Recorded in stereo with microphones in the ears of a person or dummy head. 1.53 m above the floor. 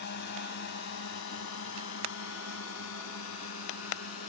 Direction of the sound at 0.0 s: 60° left (ahead or behind).